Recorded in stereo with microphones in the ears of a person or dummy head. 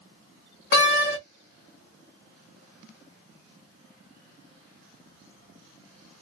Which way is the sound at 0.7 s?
60° left (ahead or behind).